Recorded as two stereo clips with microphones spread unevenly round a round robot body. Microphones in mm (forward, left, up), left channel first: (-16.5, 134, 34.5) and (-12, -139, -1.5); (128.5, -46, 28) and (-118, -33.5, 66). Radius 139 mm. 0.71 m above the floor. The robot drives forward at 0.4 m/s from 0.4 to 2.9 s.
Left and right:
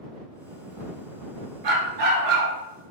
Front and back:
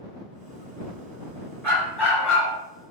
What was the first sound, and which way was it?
A dog barking, 85° right.